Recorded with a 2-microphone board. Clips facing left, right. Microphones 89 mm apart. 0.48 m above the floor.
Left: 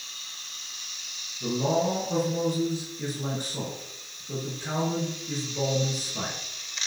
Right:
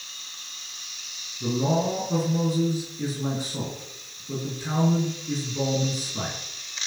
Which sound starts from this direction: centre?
A man speaking, at 1.4 s.